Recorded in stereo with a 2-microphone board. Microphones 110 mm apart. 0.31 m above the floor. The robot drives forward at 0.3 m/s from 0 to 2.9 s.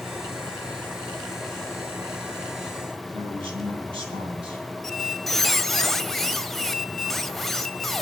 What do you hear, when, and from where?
3.1 s a man speaking: 55° right (ahead or behind), 2 m
4.8 s a squeak: 5° left (ahead or behind), 0.5 m